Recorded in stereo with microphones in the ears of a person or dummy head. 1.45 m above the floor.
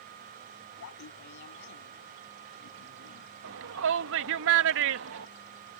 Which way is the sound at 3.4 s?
65° right (ahead or behind).